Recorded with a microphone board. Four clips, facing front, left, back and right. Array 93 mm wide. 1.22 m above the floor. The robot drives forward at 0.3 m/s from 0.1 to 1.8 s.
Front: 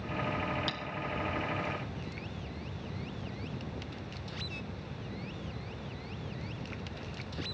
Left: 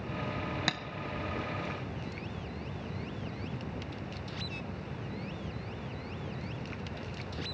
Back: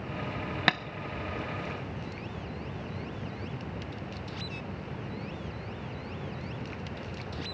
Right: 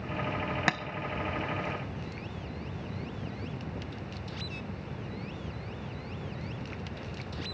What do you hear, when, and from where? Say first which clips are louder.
0.7 s tapping: right 7 dB, back 12 dB; 150° right, 0.6 m; by 0.8 s 155° right, 0.6 m